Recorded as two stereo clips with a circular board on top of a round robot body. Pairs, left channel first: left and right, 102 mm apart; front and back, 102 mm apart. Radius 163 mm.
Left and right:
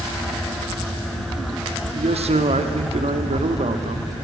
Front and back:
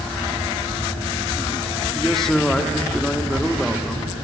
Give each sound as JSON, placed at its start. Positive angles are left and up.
{"t": 1.9, "sound": "a man speaking", "azimuth_deg": -85, "distance_m": 1.7}